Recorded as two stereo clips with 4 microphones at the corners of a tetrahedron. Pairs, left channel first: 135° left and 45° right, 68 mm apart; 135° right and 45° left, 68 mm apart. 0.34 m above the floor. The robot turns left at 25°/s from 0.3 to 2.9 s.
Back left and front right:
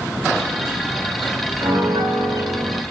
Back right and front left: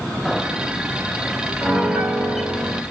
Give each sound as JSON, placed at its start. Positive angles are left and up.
{"t": 1.6, "sound": "a piano", "azimuth_deg": -25, "distance_m": 1.6}